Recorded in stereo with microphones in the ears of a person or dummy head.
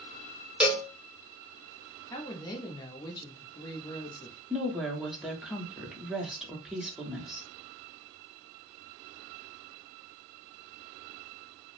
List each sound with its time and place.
0.6 s a cowbell: 5° right (ahead or behind), 1.1 m
2.1 s a woman speaking: 20° left (ahead or behind), 0.8 m
4.5 s a woman speaking: 5° right (ahead or behind), 0.8 m